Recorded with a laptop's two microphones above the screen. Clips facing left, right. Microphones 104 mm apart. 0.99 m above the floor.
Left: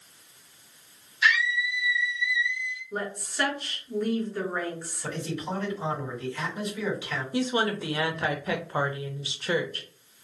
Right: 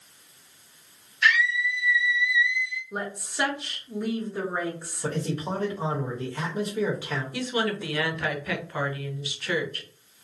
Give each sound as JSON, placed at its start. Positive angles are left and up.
{"t": 1.2, "sound": "a scream", "side_deg": 10, "distance_m": 0.9}
{"t": 2.9, "sound": "a woman speaking", "side_deg": -10, "distance_m": 0.9}
{"t": 5.0, "sound": "a man speaking", "side_deg": -40, "distance_m": 1.0}
{"t": 7.3, "sound": "a woman speaking", "side_deg": 25, "distance_m": 0.6}